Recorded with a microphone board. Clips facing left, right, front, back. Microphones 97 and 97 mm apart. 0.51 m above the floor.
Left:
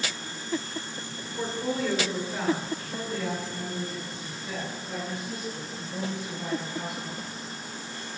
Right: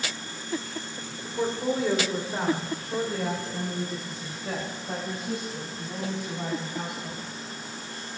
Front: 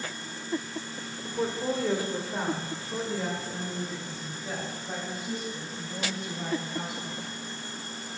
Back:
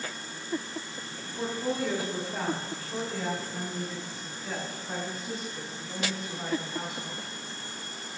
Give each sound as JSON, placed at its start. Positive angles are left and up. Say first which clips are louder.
{"t": 1.2, "sound": "a woman speaking", "louder": "right 4 dB, front 2 dB", "azimuth_deg": -25, "distance_m": 1.9}